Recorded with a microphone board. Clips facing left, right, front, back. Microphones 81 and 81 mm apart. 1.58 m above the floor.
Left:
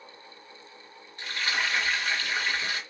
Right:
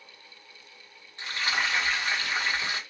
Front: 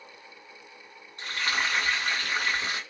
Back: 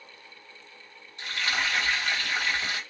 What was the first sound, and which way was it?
Frying, 30° right.